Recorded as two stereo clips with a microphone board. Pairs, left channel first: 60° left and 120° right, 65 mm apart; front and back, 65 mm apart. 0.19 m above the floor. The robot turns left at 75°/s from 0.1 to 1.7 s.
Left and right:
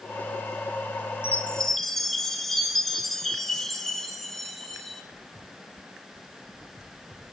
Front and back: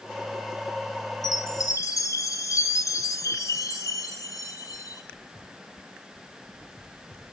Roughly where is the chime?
Ahead.